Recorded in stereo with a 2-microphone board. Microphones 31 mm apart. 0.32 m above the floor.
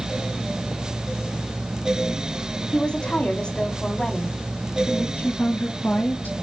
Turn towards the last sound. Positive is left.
turn(degrees=70)  # may be behind; listen again after turning